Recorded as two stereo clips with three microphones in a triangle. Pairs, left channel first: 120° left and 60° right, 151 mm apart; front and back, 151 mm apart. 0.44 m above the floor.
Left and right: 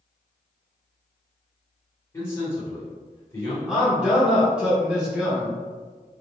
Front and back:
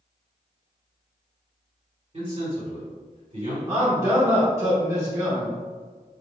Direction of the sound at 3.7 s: 135° right.